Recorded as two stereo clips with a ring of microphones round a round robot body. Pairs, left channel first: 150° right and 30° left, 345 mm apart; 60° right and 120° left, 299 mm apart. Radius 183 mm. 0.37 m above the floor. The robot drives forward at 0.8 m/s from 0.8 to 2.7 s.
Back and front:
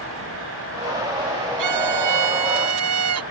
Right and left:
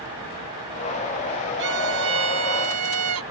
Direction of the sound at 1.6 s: 65° left.